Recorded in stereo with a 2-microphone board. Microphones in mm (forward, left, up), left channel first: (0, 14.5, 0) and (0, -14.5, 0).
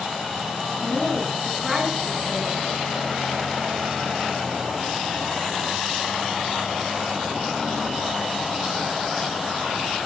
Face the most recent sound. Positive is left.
turn(degrees=-5)  # may be behind; listen again after turning